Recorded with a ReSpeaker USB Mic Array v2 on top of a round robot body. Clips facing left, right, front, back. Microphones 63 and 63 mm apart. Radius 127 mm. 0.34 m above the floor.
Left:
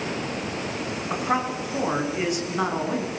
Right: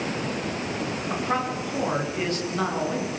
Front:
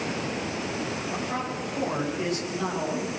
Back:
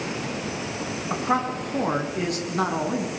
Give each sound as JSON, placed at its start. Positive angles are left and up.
{"t": 1.1, "sound": "a man speaking", "azimuth_deg": 165, "distance_m": 6.0}